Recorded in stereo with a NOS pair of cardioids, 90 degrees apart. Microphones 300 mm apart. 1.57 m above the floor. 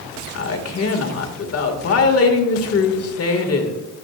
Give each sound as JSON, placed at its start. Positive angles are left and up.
{"t": 0.3, "sound": "a woman speaking", "azimuth_deg": 50, "distance_m": 2.0}